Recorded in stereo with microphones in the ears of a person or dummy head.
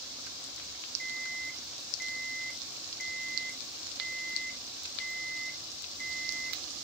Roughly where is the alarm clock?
Centre.